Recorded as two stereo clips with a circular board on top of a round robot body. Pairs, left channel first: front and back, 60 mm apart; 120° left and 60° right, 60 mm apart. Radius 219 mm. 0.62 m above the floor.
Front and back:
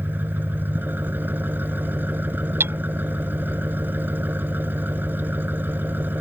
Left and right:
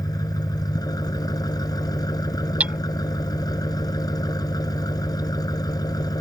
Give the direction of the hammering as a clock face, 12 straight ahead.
4 o'clock.